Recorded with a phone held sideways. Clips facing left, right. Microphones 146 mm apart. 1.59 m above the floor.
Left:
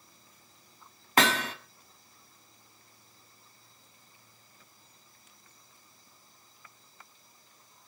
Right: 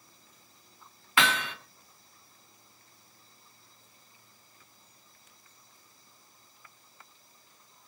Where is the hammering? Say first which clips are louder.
Left 3 dB; 40° left (ahead or behind), 1.8 m.